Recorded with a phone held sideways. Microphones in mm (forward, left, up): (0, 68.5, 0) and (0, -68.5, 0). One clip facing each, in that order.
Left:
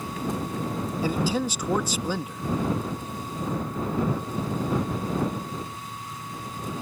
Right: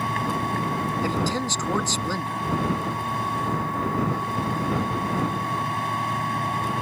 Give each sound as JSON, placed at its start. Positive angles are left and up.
{"t": 0.0, "sound": "a machine running", "side_deg": -75}
{"t": 1.0, "sound": "a man speaking", "side_deg": 10}